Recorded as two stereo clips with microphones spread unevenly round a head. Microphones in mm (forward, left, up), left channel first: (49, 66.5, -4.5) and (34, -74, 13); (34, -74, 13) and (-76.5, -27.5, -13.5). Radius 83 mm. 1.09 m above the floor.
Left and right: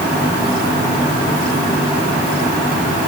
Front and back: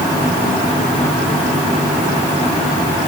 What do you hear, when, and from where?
Only background noise.